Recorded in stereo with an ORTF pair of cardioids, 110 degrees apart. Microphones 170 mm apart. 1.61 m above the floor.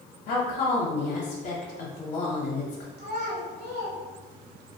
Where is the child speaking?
65° right, 1.2 m.